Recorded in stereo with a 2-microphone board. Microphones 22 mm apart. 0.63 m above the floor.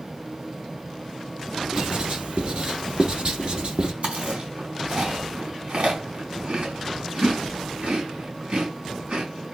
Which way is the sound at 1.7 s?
50° right (ahead or behind).